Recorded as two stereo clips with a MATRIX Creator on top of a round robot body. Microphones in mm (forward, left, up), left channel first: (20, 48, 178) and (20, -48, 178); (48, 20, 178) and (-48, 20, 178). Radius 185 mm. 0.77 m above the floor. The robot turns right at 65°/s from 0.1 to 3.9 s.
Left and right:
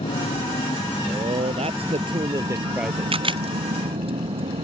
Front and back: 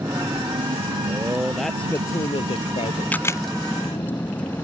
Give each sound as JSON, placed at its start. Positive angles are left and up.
{"t": 0.0, "sound": "a vehicle", "azimuth_deg": 110}
{"t": 1.1, "sound": "a man speaking", "azimuth_deg": -125}
{"t": 3.1, "sound": "a camera shutter", "azimuth_deg": -75}